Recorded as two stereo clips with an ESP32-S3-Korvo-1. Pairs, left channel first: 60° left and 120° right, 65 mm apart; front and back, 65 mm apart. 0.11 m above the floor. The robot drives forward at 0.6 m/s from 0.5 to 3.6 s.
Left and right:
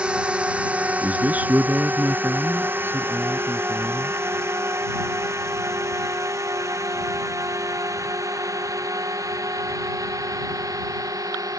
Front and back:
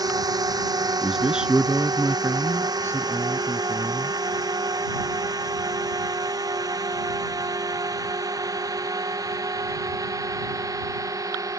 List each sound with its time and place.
0.0 s a drone: 165° left; by 11.6 s 150° right
1.0 s a man speaking: 105° right; by 4.2 s 165° right